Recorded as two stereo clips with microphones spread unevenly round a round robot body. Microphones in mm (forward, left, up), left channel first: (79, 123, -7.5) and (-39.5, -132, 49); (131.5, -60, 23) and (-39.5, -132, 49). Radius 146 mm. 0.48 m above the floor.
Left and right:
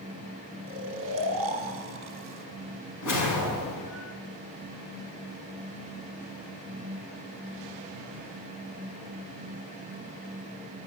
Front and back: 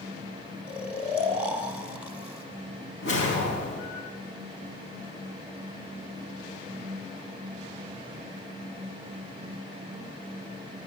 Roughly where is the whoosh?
Ahead left.